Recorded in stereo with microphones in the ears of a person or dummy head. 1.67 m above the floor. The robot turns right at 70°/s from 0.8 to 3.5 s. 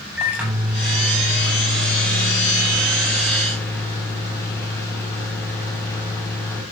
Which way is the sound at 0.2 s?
170° right.